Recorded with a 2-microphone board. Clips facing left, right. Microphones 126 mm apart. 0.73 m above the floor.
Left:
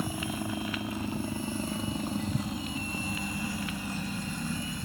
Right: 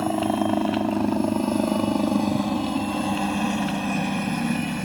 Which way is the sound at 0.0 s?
75° right (ahead or behind).